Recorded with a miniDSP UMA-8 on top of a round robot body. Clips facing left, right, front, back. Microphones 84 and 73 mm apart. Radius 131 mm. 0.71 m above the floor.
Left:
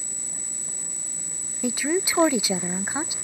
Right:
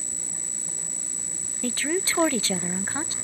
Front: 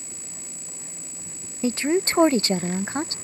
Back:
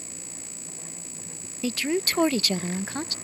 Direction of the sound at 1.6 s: 25° left.